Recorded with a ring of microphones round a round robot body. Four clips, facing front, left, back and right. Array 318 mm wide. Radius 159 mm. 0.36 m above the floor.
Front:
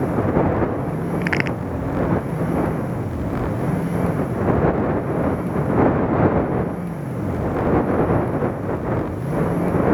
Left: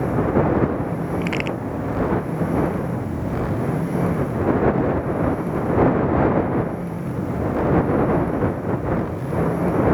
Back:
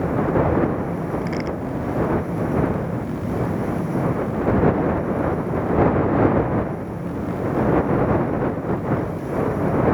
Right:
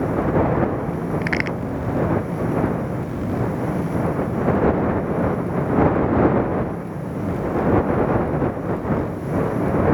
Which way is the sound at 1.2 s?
10° right.